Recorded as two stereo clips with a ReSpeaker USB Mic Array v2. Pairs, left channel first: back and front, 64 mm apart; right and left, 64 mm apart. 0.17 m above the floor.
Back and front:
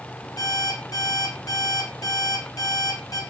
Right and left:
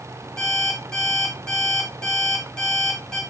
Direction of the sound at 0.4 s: 170° right.